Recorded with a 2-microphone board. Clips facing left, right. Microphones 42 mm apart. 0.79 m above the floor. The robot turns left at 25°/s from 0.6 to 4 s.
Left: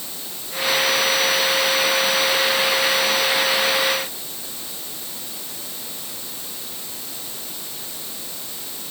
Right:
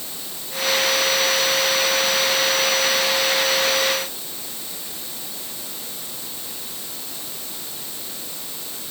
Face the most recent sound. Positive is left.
No sound to turn to.